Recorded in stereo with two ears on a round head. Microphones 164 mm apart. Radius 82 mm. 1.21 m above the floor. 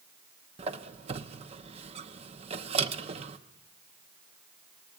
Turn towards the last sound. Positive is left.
turn(degrees=-35)  # may be behind; listen again after turning